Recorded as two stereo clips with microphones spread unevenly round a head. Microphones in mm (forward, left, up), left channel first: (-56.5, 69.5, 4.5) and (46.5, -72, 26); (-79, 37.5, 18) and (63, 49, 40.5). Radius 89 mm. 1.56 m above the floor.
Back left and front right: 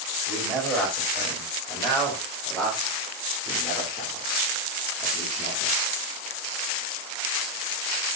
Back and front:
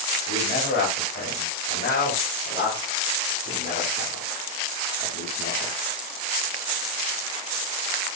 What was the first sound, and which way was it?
A man speaking, 145° right.